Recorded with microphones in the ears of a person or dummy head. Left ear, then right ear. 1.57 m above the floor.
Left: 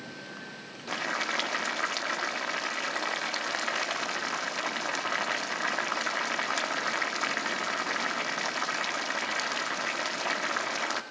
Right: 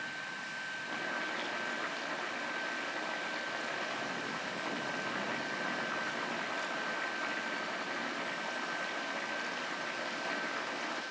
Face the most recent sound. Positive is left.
turn(degrees=55)  # may be behind; listen again after turning